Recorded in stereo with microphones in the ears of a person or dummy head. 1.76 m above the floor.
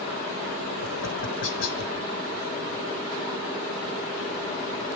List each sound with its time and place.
0.8 s tapping: 80° left, 1.9 m